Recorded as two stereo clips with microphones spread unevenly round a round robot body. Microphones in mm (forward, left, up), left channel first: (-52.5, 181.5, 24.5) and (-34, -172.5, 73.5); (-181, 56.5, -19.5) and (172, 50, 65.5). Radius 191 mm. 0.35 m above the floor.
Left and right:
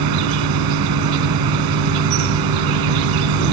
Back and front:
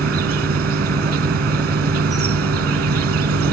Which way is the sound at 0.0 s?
55° right.